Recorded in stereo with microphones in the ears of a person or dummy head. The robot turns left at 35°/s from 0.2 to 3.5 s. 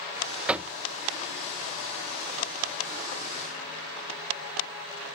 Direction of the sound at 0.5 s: 5° right (ahead or behind).